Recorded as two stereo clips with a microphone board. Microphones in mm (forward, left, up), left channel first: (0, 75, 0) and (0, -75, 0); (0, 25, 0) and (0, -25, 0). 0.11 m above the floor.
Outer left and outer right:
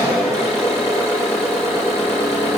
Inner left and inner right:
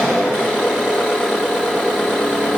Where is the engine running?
20° right (ahead or behind), 3 m.